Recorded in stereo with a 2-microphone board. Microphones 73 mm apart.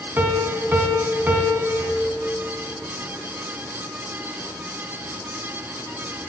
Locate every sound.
0.2 s a piano: 25° right (ahead or behind), 0.5 m